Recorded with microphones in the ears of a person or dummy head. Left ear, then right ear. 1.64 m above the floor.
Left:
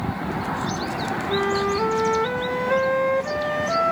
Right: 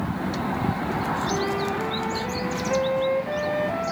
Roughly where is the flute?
Left.